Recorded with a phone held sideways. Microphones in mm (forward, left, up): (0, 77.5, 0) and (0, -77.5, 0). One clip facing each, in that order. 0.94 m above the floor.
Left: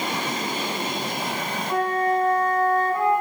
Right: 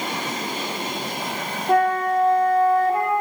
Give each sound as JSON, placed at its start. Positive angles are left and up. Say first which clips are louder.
{"t": 1.7, "sound": "a flute", "louder": "right 4 dB", "side_deg": -75, "distance_m": 2.5}